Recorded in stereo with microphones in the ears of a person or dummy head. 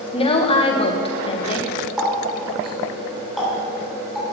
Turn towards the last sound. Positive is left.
turn(degrees=-5)  # may be behind; listen again after turning